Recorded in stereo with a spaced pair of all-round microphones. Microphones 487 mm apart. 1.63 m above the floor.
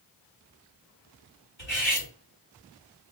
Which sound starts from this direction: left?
Cutlery clinking, at 1.6 s.